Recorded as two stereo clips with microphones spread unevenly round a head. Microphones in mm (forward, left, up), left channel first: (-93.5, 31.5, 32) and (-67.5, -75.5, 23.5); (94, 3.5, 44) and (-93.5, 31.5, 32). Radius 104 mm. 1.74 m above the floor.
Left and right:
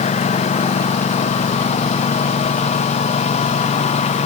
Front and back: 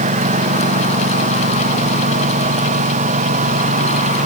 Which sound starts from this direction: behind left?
A lawn mower, at 0.0 s.